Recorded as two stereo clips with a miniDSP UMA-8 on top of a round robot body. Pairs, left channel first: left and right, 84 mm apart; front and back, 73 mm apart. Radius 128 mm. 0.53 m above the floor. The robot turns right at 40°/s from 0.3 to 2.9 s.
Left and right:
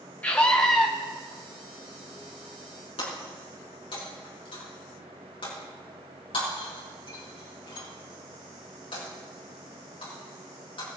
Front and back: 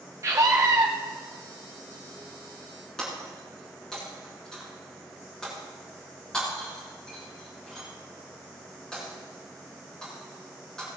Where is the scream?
155° left, 1.7 m; by 0.9 s straight behind, 1.7 m.